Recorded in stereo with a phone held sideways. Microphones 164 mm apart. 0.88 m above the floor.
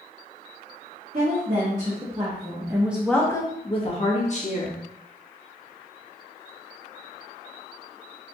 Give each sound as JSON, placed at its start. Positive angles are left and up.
{"t": 1.1, "sound": "a woman speaking", "side_deg": -55, "distance_m": 1.7}